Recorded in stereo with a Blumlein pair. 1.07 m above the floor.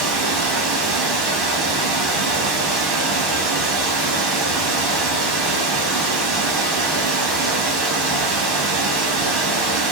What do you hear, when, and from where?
0.0 s running water: 35° right, 1.1 m